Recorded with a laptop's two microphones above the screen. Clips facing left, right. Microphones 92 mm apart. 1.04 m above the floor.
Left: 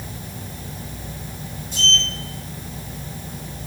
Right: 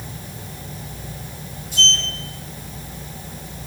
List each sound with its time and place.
1.7 s a sliding door: 10° right (ahead or behind), 1.2 m